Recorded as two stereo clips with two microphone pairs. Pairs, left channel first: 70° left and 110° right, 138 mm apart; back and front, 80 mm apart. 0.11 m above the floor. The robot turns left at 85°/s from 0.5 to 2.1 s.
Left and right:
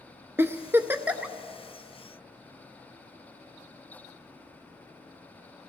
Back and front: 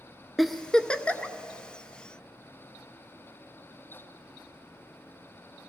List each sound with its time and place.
0.4 s a giggle: 105° right, 0.6 m; by 1.4 s straight behind, 0.6 m